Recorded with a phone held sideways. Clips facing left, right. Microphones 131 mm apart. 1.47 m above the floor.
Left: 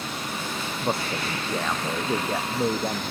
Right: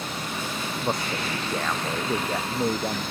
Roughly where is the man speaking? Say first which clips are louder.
Left 1 dB; centre.